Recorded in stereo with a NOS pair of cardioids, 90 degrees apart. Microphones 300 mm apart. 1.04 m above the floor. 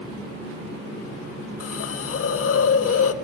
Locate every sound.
1.6 s a hiss: 50° left, 1.2 m